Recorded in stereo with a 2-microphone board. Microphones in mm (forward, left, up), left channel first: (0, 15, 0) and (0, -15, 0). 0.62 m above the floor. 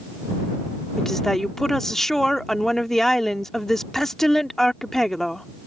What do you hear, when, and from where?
1.0 s a woman speaking: 10° left (ahead or behind)